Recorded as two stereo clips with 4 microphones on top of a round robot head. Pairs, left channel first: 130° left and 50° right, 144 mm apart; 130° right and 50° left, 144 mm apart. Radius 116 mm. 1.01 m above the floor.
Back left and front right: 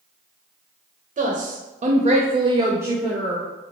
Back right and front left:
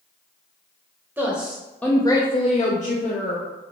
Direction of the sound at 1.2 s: 25° right.